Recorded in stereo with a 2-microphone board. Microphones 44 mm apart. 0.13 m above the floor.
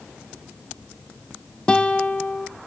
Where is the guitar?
20° left (ahead or behind), 0.6 m.